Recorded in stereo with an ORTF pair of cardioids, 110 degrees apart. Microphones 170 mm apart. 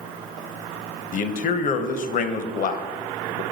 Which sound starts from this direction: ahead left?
A man speaking, at 1.1 s.